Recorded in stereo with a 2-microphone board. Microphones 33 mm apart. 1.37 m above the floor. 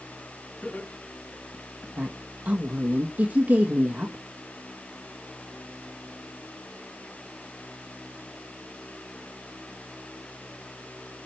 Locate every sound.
0.6 s laughter: 85° left, 3.5 m; by 1.9 s 80° left, 2.5 m
2.0 s a woman speaking: 60° right (ahead or behind), 1.3 m